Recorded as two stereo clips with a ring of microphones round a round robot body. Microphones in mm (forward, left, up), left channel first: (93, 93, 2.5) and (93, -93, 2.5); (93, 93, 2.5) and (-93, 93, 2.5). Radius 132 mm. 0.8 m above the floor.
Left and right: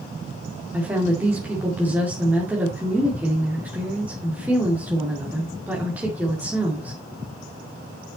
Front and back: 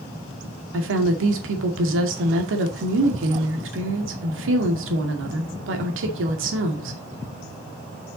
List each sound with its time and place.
0.7 s a woman speaking: 175° right, 2 m